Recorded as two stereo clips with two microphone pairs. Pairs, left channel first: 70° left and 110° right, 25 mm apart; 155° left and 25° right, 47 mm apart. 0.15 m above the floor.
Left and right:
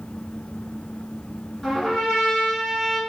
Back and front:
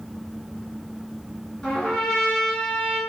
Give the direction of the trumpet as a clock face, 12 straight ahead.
8 o'clock.